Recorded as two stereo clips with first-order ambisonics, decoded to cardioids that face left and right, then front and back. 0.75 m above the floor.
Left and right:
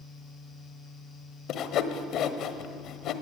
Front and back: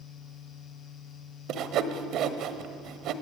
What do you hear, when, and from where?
1.5 s sawing: 135° left, 1.3 m